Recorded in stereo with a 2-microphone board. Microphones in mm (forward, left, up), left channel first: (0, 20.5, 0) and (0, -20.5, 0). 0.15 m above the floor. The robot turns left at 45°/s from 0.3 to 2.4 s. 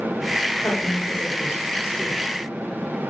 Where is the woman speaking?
135° left, 7.5 m; by 2.3 s 60° left, 7.5 m.